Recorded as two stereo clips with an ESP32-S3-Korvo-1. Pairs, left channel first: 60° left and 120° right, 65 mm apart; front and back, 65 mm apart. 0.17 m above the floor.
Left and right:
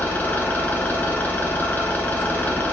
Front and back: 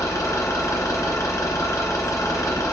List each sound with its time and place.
0.0 s an engine running: straight ahead, 2 m